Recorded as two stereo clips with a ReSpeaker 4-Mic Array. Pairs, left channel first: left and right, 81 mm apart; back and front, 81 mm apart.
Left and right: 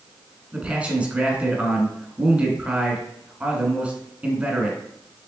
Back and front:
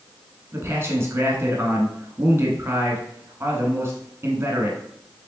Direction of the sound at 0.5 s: 30° right.